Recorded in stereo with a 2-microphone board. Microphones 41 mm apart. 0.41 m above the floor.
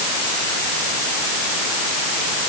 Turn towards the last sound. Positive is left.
No sound to turn to.